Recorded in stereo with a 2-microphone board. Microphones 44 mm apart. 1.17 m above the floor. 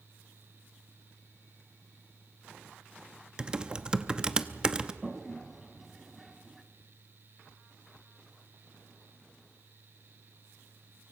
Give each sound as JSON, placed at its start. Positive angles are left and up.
{"t": 3.4, "sound": "typing on a keyboard", "side_deg": -20, "distance_m": 0.9}
{"t": 5.0, "sound": "a toilet flushing", "side_deg": -5, "distance_m": 1.3}